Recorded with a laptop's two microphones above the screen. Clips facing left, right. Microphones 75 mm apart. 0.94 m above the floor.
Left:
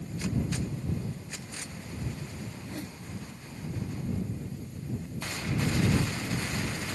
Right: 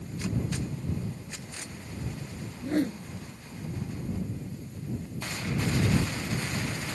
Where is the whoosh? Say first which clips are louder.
Right 12 dB; 60° right (ahead or behind).